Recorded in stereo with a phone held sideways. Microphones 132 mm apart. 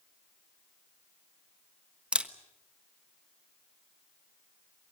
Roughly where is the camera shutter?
Centre.